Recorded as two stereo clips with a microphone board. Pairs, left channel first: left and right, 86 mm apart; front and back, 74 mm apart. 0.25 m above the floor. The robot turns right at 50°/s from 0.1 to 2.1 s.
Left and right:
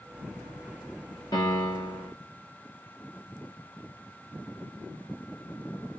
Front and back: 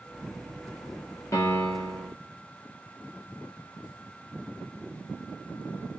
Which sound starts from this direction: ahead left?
A piano, at 1.3 s.